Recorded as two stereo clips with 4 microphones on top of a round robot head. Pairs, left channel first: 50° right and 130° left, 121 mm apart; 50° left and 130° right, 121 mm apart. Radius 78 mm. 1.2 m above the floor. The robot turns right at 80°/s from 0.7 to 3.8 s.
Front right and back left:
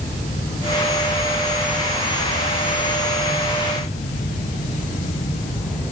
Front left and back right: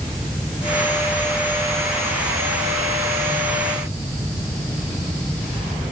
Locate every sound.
Only background noise.